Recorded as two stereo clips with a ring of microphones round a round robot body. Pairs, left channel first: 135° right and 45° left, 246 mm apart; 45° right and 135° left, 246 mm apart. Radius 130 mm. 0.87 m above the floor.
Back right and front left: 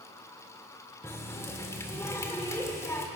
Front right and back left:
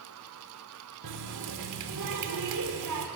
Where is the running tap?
145° left, 1.7 m.